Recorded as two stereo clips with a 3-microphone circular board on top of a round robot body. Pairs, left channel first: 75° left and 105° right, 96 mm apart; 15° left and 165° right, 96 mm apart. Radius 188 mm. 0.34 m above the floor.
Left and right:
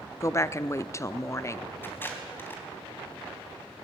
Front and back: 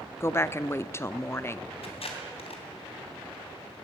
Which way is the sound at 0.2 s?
50° left.